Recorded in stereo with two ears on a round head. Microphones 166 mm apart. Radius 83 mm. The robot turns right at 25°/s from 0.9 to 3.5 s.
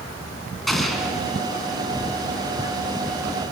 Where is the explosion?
Centre (ahead or behind), 2.5 m; by 1.2 s 5° right (ahead or behind), 2.5 m.